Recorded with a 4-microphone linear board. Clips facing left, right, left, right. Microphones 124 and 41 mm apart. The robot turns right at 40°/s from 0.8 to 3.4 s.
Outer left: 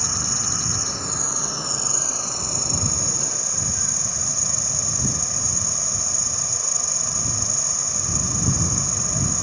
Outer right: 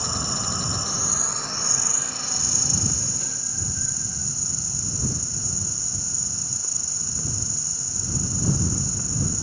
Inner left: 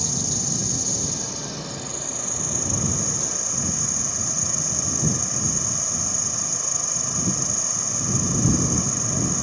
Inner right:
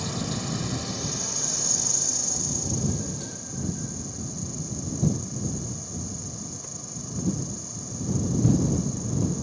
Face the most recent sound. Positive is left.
turn(degrees=85)